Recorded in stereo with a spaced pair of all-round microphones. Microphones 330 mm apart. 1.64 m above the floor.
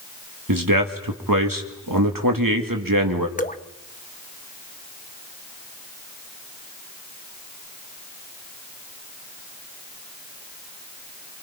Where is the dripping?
25° left (ahead or behind), 0.9 m.